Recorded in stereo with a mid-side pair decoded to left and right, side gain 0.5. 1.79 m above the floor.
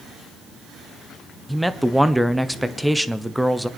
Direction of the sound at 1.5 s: Straight ahead.